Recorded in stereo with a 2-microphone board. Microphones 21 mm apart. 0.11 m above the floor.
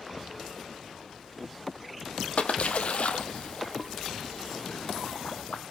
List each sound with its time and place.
2.4 s a splash: 65° left (ahead or behind), 1.3 m